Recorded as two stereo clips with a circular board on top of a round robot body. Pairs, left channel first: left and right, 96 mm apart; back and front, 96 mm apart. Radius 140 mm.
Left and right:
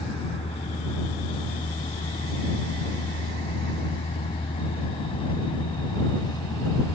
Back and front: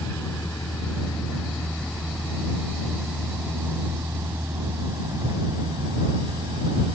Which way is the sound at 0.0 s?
105° left.